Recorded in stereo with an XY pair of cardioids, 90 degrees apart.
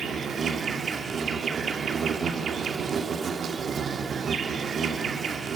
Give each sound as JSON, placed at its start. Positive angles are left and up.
{"t": 0.0, "sound": "an insect", "azimuth_deg": -60, "distance_m": 1.7}